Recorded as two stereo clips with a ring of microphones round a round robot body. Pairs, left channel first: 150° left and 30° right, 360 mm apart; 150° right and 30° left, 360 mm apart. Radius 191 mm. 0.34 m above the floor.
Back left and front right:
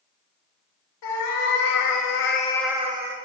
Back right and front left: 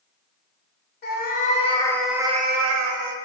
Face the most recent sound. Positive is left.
turn(degrees=20)